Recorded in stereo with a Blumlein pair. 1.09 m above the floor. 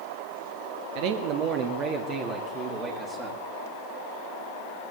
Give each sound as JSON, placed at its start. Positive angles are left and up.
{"t": 0.9, "sound": "a man speaking", "azimuth_deg": -45, "distance_m": 1.3}